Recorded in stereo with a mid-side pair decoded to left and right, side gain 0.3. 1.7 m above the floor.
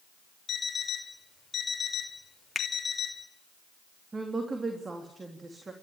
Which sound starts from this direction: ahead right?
A woman speaking, at 4.1 s.